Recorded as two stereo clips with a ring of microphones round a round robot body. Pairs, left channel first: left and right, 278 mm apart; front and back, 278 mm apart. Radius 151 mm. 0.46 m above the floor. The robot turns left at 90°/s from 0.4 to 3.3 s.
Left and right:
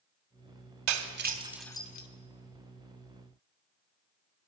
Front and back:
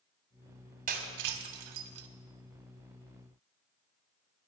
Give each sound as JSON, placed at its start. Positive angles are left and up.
{"t": 0.9, "sound": "breaking glass", "azimuth_deg": -115, "distance_m": 1.3}